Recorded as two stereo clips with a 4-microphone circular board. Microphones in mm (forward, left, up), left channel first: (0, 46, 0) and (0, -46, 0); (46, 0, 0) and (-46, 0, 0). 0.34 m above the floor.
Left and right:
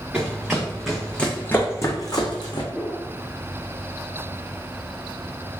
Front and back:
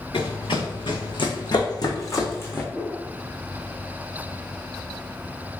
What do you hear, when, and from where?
0.1 s running footsteps: 10° right, 1.3 m; by 2.6 s 65° left, 1.0 m
2.7 s a whoosh: 55° left, 1.5 m